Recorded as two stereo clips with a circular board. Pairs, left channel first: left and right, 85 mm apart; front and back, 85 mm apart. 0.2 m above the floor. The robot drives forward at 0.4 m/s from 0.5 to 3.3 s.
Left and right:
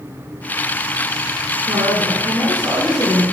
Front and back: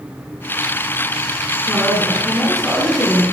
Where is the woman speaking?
75° right, 1.6 m; by 3.2 s 105° right, 1.6 m.